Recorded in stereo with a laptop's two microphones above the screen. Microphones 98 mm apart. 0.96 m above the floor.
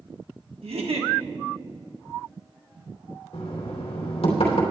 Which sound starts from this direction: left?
Knocking, at 3.3 s.